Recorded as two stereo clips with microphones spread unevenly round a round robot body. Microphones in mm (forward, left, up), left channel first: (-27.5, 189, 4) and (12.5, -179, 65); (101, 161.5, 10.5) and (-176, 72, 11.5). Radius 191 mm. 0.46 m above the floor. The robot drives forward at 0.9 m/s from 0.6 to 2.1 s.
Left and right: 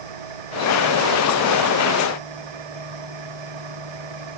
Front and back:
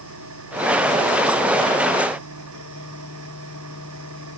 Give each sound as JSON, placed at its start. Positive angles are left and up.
{"t": 0.0, "sound": "an engine running", "azimuth_deg": -105}